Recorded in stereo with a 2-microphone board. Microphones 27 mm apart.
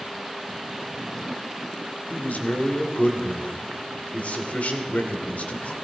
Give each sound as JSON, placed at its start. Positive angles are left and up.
{"t": 2.1, "sound": "a man speaking", "side_deg": 70, "distance_m": 2.5}